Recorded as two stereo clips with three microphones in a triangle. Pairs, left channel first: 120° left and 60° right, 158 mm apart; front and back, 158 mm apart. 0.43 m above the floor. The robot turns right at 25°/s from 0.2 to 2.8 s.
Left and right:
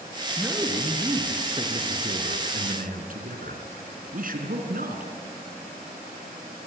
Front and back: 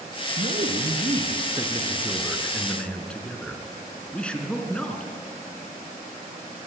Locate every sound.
0.4 s a man speaking: 145° right, 4 m; by 5.1 s 85° right, 4 m